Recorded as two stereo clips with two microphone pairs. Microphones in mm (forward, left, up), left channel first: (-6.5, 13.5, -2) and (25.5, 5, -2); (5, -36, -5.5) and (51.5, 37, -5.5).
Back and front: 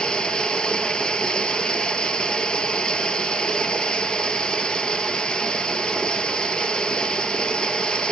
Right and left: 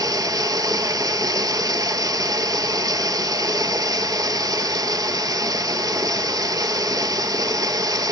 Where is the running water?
100° left, 0.7 m.